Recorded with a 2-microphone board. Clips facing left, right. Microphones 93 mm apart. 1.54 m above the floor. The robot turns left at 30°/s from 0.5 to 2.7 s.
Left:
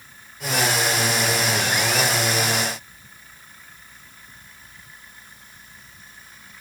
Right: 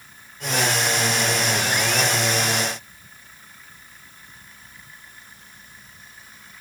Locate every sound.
Only background noise.